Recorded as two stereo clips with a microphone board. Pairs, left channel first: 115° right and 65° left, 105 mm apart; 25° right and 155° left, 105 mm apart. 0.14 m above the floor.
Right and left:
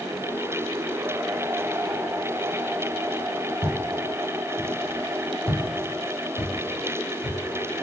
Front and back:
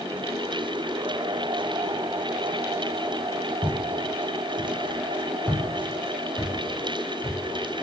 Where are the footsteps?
90° right, 1.7 m; by 7.4 s 115° right, 3.5 m.